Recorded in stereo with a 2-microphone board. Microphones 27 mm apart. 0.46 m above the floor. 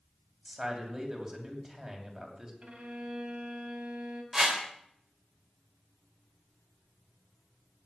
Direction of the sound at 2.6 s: 50° right (ahead or behind).